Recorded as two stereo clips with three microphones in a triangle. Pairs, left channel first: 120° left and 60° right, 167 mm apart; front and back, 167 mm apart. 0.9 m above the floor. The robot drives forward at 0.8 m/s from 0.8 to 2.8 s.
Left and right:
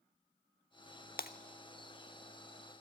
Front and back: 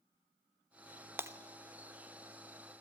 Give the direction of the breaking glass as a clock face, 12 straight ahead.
9 o'clock.